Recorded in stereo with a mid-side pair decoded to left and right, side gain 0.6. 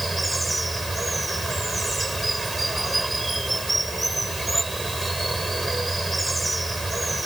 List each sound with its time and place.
0.0 s running water: 10° right